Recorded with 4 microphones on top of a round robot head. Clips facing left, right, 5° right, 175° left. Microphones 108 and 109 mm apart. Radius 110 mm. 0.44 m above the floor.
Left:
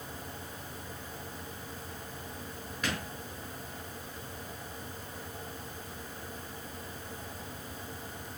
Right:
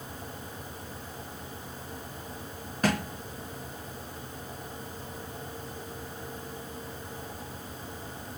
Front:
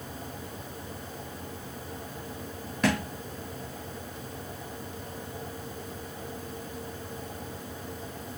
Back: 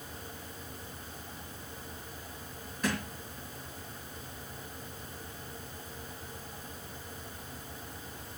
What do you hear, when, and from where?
2.8 s a thud: 35° right, 1.3 m